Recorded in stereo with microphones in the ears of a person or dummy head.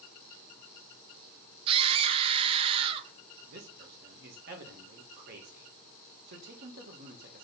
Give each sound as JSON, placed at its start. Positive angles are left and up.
{"t": 1.7, "sound": "a scream", "side_deg": -35, "distance_m": 1.0}
{"t": 3.5, "sound": "a man speaking", "side_deg": -60, "distance_m": 1.2}